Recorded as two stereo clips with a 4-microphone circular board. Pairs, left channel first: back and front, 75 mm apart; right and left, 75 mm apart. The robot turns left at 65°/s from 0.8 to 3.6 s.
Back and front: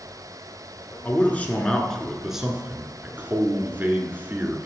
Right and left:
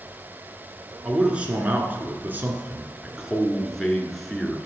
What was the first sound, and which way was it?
A man speaking, 160° left.